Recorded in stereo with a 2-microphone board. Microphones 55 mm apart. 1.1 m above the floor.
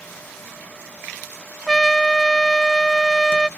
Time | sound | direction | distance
1.7 | a trumpet | 5° left (ahead or behind) | ?